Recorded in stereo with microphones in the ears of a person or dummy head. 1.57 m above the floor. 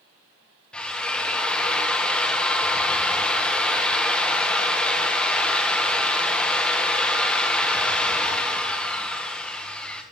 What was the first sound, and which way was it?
A drill, 5° left (ahead or behind).